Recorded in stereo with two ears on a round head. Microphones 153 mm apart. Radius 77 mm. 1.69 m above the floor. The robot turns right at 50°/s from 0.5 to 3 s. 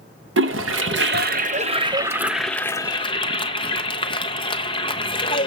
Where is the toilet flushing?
85° right, 0.9 m; by 5.5 s 30° left (ahead or behind), 0.9 m.